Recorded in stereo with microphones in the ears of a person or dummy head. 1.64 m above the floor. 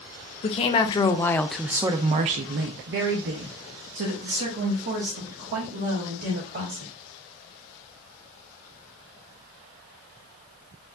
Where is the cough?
No cough in this recording.